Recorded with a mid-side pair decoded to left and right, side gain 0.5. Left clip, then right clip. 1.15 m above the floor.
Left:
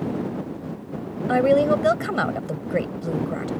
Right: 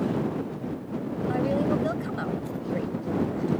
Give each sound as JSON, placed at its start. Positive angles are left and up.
{"t": 1.3, "sound": "a woman speaking", "azimuth_deg": 65}